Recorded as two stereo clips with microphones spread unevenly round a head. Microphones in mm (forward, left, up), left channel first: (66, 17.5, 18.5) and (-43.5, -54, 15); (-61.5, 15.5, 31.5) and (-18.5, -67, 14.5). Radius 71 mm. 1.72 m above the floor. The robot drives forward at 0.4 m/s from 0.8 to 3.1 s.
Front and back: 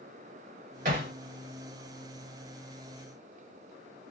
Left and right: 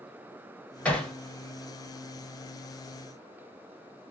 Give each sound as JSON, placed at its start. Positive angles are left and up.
{"t": 0.8, "sound": "hammering", "azimuth_deg": -170, "distance_m": 2.5}